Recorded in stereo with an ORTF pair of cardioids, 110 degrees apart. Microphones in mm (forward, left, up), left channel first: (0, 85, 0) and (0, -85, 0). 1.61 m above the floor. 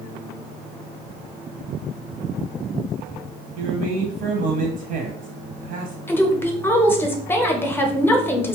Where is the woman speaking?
15° left, 0.7 m.